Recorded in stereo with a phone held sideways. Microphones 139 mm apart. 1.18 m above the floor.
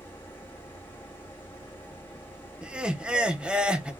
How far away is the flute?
No flute in this recording.